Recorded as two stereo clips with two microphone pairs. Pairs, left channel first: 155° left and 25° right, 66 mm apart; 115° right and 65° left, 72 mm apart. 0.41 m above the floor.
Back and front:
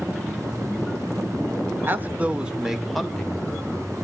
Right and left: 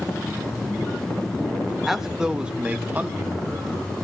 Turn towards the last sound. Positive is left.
turn(degrees=105)